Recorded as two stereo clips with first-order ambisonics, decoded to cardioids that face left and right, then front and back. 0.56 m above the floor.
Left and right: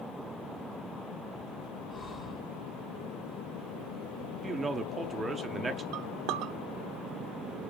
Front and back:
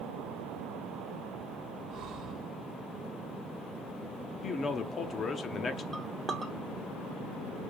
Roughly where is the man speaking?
Ahead right.